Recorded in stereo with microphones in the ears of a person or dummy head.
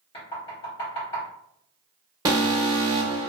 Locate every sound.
0.1 s knocking: 25° left (ahead or behind), 1.0 m
2.2 s an alarm: 20° right (ahead or behind), 0.8 m